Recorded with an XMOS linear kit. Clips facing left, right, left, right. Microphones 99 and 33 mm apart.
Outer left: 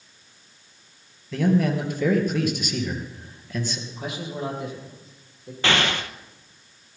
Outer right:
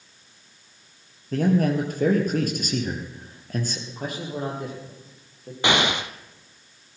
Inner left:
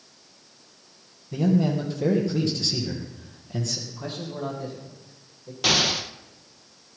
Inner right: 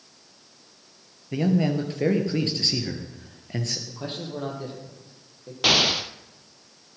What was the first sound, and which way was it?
A man speaking, 45° right (ahead or behind).